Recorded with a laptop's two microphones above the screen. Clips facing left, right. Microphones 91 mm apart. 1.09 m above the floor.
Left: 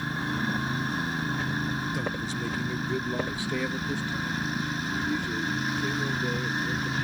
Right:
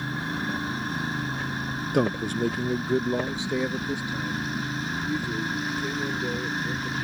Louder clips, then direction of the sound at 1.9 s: Right 7 dB; 60° right (ahead or behind).